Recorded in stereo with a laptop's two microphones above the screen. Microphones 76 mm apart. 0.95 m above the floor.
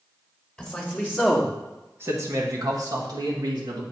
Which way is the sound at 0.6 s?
5° left (ahead or behind).